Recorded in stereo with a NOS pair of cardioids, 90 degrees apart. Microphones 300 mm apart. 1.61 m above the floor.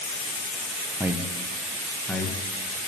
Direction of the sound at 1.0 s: 10° right.